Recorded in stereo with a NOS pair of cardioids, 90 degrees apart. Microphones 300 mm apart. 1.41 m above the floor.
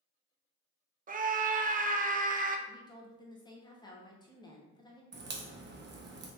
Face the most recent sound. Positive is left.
turn(degrees=-40)